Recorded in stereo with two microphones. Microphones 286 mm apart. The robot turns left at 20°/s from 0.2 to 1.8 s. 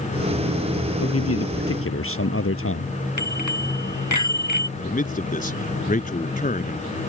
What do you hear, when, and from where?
1.0 s a man speaking: 55° left (ahead or behind); by 2.9 s 50° left (ahead or behind)
3.2 s a bicycle bell: 85° left
4.8 s a man speaking: 30° left (ahead or behind)